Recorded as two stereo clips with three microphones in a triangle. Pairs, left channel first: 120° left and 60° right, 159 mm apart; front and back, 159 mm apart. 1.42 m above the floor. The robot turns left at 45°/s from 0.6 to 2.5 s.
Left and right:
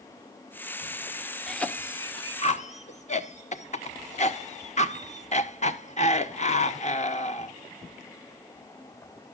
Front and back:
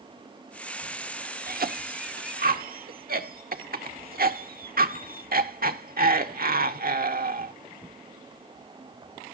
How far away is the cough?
About 1.1 m.